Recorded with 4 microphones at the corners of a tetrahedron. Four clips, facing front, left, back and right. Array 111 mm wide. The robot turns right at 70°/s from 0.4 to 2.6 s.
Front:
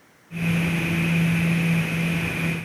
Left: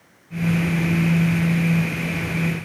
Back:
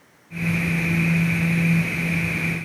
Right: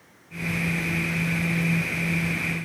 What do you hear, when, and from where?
Only background noise.